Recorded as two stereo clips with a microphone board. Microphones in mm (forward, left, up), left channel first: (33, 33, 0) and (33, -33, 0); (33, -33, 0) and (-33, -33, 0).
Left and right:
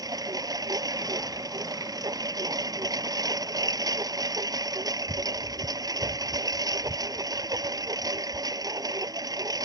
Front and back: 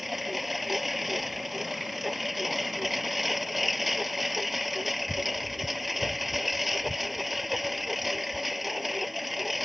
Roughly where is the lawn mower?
Right.